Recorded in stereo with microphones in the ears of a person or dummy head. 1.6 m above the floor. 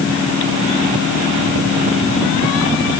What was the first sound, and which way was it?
Only background noise.